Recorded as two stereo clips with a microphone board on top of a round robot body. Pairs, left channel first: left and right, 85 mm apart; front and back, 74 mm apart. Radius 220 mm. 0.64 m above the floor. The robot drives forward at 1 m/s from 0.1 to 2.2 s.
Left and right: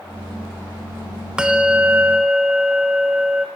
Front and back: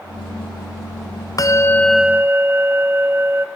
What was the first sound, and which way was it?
A bell, 10° right.